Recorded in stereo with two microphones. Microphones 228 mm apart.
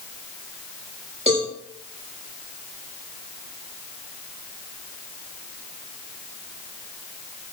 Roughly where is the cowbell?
Right.